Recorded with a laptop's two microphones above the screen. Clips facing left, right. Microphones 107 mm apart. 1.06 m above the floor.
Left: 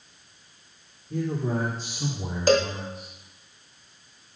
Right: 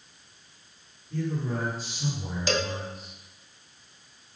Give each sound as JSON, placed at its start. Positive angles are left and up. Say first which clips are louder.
{"t": 1.1, "sound": "a man speaking", "louder": "left 3 dB", "side_deg": 80, "distance_m": 3.5}
{"t": 2.5, "sound": "a cowbell", "louder": "left 8 dB", "side_deg": 45, "distance_m": 1.0}